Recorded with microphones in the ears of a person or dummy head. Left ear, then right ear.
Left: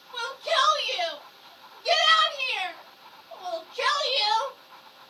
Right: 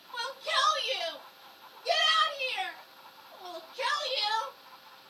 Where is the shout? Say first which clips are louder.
Left 5 dB; centre (ahead or behind), 2 m; by 4.6 s 70° left (ahead or behind), 1.6 m.